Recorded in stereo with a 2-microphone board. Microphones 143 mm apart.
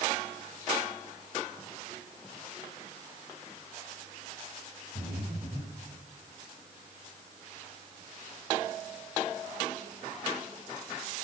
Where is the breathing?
85° right, 9 m.